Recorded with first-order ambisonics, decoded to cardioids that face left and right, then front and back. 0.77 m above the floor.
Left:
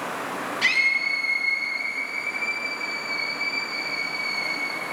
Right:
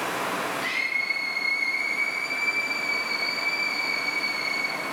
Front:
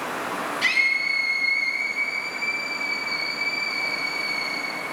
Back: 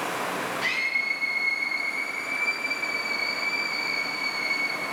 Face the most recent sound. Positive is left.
turn(degrees=-70)